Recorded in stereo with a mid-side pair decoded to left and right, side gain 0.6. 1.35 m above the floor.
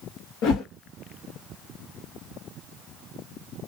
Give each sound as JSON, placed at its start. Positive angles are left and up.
{"t": 0.4, "sound": "a whoosh", "azimuth_deg": 65, "distance_m": 1.3}